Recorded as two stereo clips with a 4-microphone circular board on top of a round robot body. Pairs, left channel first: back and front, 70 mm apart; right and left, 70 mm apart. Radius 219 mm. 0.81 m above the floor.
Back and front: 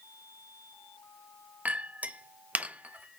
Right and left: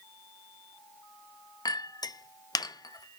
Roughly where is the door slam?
I don't hear a door slam.